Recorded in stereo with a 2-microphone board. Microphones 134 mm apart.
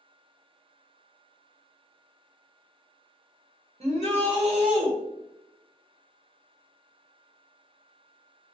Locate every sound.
3.8 s a shout: 50° right (ahead or behind), 1.0 m